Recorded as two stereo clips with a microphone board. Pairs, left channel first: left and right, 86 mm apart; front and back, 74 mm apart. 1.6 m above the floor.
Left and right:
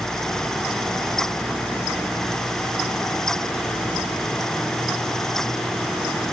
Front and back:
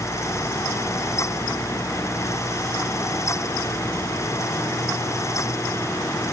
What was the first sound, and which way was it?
Only background noise.